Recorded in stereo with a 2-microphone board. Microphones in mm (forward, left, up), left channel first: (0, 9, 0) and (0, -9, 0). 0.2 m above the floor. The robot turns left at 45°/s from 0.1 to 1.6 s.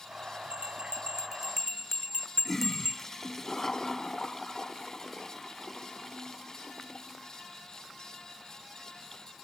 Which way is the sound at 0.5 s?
65° right (ahead or behind).